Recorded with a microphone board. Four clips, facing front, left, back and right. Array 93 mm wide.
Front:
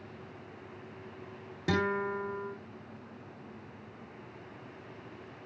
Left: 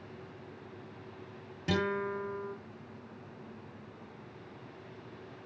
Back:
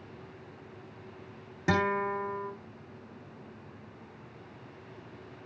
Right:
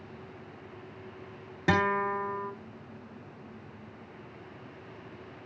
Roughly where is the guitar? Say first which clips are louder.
Right 6 dB, back 2 dB; right.